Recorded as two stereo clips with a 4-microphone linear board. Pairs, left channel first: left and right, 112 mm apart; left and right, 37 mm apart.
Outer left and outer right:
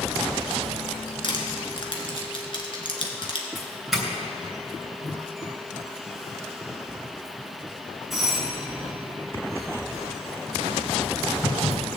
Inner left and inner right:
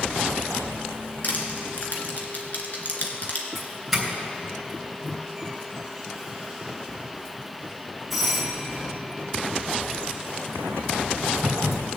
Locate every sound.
1.2 s crushing: 50° left (ahead or behind), 1.8 m
3.5 s a doorbell: centre (ahead or behind), 3 m